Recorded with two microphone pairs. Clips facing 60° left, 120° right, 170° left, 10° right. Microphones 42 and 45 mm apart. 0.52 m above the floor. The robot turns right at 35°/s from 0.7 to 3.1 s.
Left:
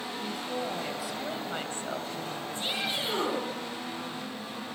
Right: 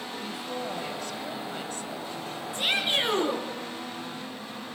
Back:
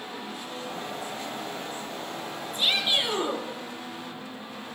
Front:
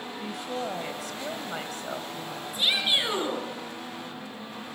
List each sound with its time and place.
0.2 s a woman speaking: 35° right, 2.5 m; by 2.4 s 30° left, 2.5 m
2.5 s a shout: 95° right, 10 m; by 3.4 s 75° right, 10 m